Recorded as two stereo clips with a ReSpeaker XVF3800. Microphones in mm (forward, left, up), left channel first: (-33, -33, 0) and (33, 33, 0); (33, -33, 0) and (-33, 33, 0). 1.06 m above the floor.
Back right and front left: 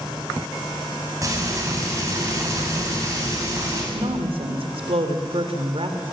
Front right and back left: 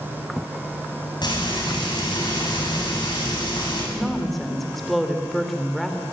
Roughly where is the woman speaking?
Ahead left.